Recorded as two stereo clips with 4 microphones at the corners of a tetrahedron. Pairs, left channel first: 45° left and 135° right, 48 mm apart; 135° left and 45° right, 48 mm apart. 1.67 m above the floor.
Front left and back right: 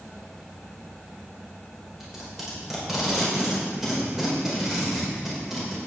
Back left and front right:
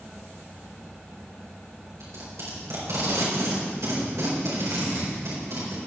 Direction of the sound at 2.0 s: 50° right.